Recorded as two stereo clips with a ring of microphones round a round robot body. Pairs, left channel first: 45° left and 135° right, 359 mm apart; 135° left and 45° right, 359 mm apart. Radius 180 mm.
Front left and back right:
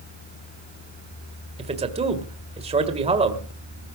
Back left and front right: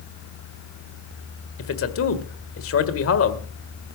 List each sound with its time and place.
1.6 s a man speaking: 160° left, 1.7 m